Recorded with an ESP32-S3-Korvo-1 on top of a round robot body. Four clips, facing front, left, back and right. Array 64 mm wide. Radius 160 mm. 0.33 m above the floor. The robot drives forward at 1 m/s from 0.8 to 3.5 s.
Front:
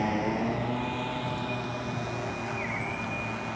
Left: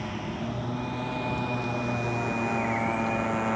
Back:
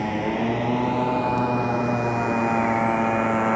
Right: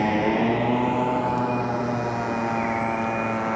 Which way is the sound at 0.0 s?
95° right.